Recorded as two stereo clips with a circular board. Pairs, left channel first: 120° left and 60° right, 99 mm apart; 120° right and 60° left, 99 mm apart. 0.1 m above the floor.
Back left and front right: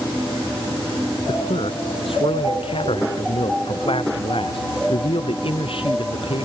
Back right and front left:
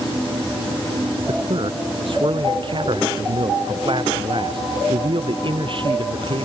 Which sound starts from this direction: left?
A man speaking, at 1.3 s.